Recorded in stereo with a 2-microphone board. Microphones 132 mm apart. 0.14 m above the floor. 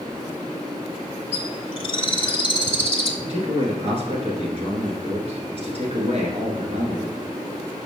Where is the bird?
40° left (ahead or behind), 0.7 m.